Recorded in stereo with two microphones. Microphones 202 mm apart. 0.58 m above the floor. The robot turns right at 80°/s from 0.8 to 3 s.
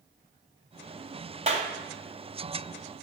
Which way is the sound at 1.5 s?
35° right (ahead or behind).